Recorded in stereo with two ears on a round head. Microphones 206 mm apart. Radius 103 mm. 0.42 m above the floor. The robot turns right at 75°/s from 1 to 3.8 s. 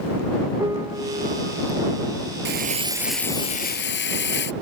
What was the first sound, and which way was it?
A piano, 165° right.